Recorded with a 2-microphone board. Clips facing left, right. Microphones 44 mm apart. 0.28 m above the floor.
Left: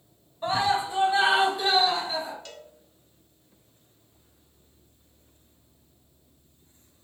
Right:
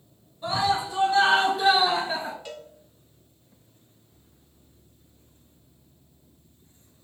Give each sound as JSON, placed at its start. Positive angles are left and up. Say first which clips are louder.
{"t": 0.4, "sound": "a scream", "louder": "even", "side_deg": 35, "distance_m": 2.0}
{"t": 2.5, "sound": "a cowbell", "louder": "right 5 dB", "side_deg": -10, "distance_m": 1.1}